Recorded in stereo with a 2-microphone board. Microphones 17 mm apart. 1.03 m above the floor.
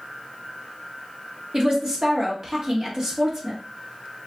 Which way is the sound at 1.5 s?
40° right (ahead or behind).